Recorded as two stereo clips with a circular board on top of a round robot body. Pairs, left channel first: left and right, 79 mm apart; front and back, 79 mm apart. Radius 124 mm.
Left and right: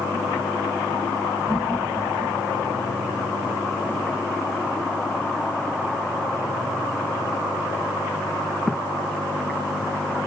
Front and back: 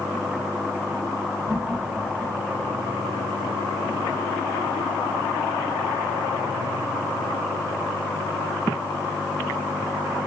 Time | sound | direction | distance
1.5 | laughter | 120° right | 4 m